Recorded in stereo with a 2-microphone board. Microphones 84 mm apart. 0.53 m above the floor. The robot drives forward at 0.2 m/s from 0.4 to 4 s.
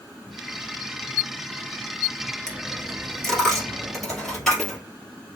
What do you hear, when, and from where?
2.5 s a dropped coin: 5° left (ahead or behind), 2.0 m